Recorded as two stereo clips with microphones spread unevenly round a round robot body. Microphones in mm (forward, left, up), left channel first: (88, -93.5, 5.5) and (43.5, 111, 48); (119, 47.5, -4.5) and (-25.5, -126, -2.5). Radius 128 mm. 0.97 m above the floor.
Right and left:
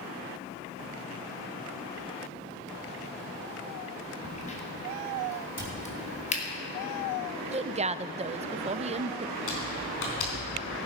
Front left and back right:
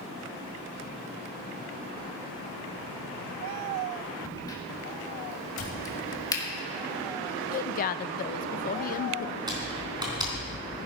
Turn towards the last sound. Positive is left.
turn(degrees=-60)